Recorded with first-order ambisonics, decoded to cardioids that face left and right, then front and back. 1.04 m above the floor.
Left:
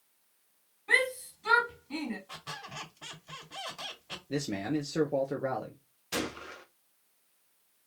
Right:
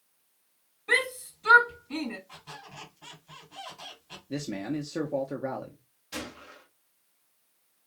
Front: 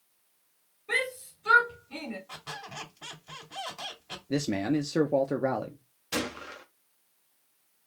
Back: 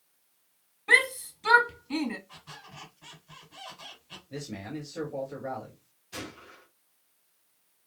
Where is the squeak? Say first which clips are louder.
Left 4 dB, front 7 dB; 35° left, 2 m.